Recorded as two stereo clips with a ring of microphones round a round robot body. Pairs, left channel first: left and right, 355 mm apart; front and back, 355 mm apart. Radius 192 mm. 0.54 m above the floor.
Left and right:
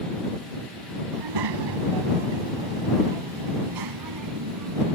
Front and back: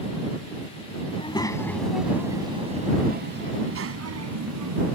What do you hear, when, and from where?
1.1 s a child speaking: 75° right; by 5.0 s 145° right